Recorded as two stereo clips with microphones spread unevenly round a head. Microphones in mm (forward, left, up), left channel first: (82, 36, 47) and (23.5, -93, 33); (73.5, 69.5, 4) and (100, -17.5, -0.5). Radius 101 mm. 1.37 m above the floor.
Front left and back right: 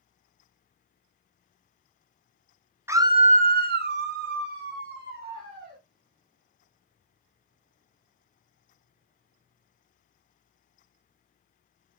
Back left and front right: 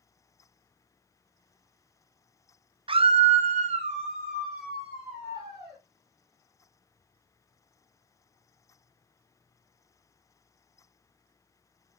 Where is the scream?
40° right, 0.5 m; by 5.8 s 150° right, 1.6 m.